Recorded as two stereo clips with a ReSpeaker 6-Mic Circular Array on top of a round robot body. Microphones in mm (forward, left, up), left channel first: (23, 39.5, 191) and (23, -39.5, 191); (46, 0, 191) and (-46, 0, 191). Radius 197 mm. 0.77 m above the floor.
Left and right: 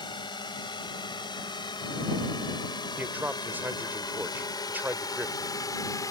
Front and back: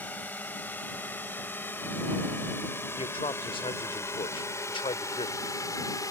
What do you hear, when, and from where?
0.0 s a drone: 70° left; by 6.1 s 50° left
3.0 s a man speaking: 20° right